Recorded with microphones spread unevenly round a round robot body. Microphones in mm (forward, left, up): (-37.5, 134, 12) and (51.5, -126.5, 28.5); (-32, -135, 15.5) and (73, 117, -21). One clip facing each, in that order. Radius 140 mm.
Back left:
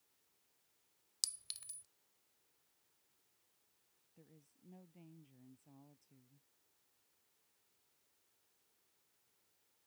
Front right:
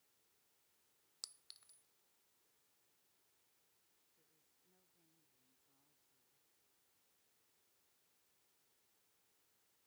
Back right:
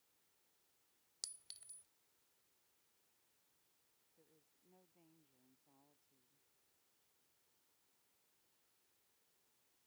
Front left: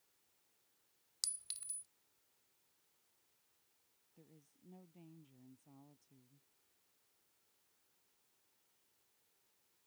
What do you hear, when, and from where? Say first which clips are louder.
1.2 s a clink: back left 4 dB, even; 140° left
4.2 s a woman speaking: back left 18 dB, front left 9 dB; 105° left